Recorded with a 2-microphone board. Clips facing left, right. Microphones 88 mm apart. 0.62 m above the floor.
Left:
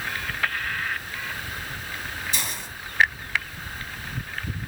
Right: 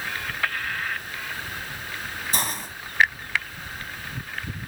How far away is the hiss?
About 1.9 m.